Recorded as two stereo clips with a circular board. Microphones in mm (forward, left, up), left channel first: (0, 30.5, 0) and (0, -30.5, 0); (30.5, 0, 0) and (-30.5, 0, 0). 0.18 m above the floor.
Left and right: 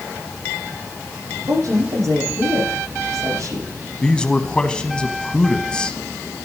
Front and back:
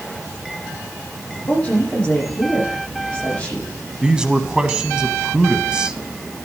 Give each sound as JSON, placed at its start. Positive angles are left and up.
{"t": 1.5, "sound": "a woman speaking", "azimuth_deg": -70, "distance_m": 8.5}
{"t": 4.0, "sound": "a man speaking", "azimuth_deg": 130, "distance_m": 1.0}